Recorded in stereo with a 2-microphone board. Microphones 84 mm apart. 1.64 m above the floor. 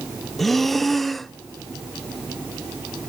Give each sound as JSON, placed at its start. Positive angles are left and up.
{"t": 0.4, "sound": "breathing", "side_deg": 0, "distance_m": 0.5}